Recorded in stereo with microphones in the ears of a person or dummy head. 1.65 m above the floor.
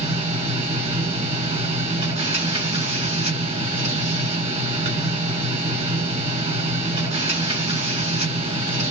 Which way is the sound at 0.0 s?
30° right (ahead or behind).